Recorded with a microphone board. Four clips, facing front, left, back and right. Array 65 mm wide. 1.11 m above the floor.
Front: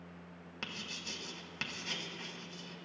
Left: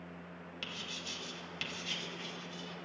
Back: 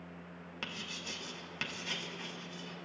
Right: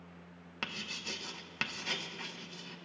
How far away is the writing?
About 0.9 m.